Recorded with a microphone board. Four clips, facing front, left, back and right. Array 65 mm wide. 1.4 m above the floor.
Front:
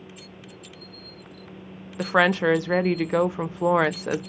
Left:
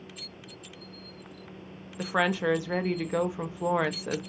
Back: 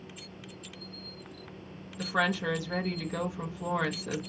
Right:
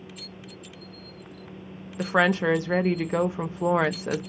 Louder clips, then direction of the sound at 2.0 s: Right 5 dB, front 9 dB; 20° right.